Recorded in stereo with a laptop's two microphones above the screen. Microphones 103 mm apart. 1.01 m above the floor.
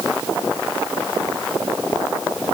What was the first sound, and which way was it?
Only background noise.